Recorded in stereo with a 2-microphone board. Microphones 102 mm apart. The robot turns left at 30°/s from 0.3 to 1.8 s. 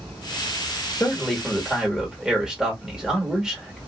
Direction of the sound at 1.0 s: 10° left (ahead or behind).